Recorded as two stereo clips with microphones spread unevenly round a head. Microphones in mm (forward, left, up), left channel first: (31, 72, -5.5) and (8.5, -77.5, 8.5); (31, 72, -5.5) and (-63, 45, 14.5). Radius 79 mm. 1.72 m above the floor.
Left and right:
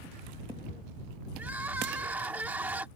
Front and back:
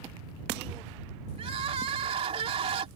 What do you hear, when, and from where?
1.4 s crying: straight behind